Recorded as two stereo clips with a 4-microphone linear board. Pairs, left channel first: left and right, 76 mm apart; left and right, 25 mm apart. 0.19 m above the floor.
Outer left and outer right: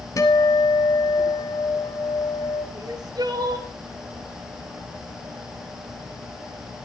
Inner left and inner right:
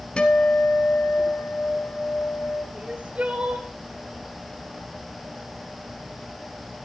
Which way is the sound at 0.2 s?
50° left (ahead or behind).